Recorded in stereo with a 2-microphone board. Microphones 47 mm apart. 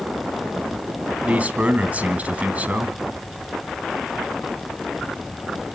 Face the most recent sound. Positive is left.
turn(degrees=-30)  # may be behind; listen again after turning